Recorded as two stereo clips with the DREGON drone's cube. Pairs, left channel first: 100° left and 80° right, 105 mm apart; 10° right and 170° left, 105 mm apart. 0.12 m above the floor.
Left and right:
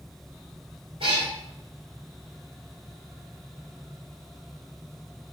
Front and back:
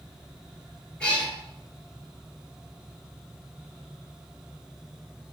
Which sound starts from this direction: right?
A cat meowing, at 1.0 s.